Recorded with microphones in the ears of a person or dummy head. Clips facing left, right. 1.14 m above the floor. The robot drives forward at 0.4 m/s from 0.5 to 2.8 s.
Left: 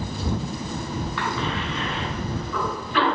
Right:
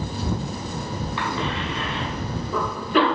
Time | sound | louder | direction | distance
1.2 | a cough | right 2 dB | 25° right (ahead or behind) | 1.6 m